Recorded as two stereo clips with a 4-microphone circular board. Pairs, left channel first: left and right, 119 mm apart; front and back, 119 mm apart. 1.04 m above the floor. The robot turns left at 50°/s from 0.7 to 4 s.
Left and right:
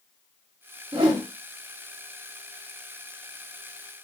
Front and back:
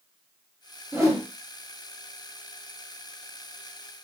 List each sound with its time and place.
0.9 s a whoosh: 120° right, 0.9 m; by 1.2 s 135° right, 0.9 m